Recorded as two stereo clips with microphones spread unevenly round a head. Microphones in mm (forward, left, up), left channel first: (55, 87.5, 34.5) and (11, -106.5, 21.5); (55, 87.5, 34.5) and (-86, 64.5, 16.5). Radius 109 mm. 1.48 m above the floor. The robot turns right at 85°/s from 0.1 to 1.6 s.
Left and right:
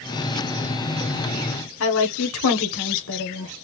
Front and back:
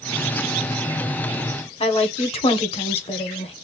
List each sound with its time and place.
1.8 s a woman speaking: 60° left, 1.1 m